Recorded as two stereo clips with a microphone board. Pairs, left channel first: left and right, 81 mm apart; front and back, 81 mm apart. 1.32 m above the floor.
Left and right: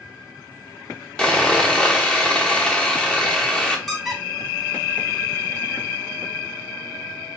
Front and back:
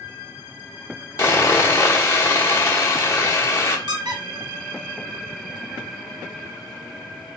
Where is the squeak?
Straight behind, 1.1 m.